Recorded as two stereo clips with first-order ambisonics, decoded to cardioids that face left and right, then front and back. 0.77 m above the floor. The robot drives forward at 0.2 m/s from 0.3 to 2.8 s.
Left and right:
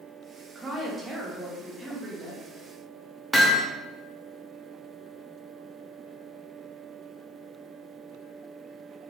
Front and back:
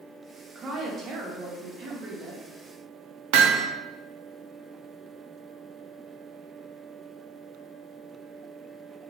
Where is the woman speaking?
145° right, 0.6 m; by 2.4 s 165° right, 0.8 m.